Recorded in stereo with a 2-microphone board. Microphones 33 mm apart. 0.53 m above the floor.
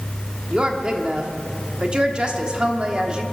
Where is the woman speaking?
30° right (ahead or behind), 1.2 m.